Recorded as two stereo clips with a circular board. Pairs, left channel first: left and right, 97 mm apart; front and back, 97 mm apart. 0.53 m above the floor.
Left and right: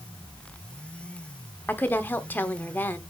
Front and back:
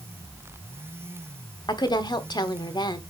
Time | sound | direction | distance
1.7 | a woman speaking | 25° left | 1.1 m